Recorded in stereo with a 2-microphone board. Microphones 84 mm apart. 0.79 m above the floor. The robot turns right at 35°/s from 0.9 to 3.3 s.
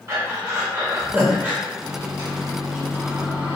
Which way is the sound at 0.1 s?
35° right (ahead or behind).